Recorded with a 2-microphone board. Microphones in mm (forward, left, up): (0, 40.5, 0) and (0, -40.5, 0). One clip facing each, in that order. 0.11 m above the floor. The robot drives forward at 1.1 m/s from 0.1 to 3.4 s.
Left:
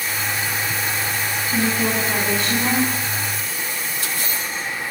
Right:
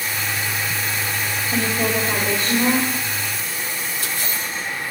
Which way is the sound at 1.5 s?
70° right (ahead or behind).